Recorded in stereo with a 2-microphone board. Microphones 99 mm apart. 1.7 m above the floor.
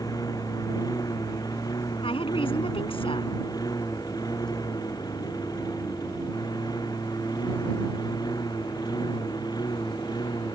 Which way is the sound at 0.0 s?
40° left (ahead or behind).